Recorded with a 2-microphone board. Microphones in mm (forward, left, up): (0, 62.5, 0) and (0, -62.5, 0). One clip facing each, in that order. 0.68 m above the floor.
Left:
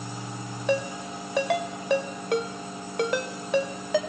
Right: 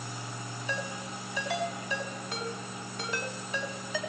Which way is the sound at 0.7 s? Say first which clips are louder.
Left 11 dB; 65° left (ahead or behind).